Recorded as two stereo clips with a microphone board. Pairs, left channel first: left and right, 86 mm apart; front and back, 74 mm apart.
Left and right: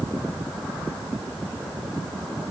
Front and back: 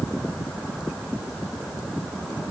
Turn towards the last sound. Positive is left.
No sound to turn to.